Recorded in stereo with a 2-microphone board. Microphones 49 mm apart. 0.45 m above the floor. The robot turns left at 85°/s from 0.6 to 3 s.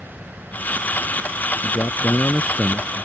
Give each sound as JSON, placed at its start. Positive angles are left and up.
{"t": 0.0, "sound": "an insect", "azimuth_deg": -160}
{"t": 1.6, "sound": "a man speaking", "azimuth_deg": 90}